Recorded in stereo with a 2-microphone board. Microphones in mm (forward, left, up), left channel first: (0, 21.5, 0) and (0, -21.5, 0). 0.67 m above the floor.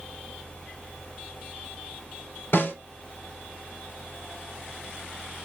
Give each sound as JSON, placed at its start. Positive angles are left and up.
{"t": 2.5, "sound": "a snare drum", "side_deg": 70, "distance_m": 3.0}